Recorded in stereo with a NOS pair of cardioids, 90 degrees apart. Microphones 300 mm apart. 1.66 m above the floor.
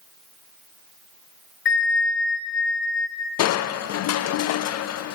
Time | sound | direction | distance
1.6 | a bell | 40° left | 1.2 m
3.4 | crushing | 60° left | 0.5 m